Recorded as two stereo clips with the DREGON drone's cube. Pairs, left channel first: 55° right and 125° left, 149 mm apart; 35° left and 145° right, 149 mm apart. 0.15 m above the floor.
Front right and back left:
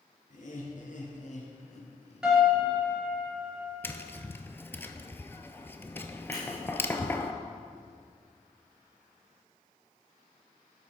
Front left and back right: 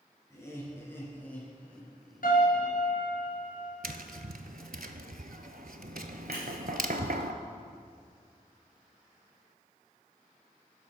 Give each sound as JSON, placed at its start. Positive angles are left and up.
{"t": 0.3, "sound": "laughter", "azimuth_deg": -35, "distance_m": 3.0}
{"t": 2.2, "sound": "a piano", "azimuth_deg": 40, "distance_m": 3.0}
{"t": 3.8, "sound": "tapping", "azimuth_deg": -130, "distance_m": 0.6}
{"t": 6.3, "sound": "scissors", "azimuth_deg": 170, "distance_m": 3.5}